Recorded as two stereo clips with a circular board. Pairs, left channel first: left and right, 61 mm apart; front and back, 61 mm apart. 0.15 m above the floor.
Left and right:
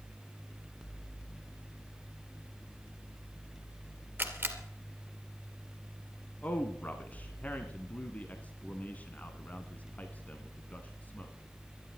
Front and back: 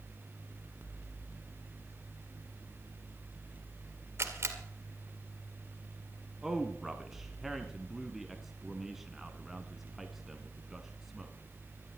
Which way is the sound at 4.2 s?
145° right.